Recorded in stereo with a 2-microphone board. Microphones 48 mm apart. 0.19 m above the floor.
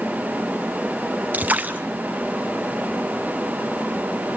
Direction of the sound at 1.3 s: 35° right (ahead or behind).